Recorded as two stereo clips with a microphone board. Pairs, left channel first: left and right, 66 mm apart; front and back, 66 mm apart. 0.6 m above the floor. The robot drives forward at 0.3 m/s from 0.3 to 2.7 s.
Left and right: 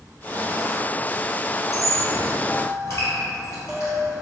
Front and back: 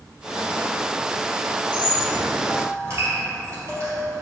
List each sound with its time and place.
1.7 s a squeak: 130° left, 1.9 m; by 4.2 s 140° left, 2 m